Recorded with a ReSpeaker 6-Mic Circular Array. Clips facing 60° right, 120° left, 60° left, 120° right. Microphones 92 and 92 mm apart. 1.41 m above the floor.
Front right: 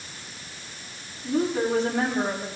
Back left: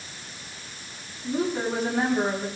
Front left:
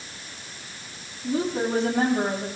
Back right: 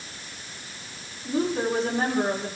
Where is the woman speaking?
35° left, 9 m.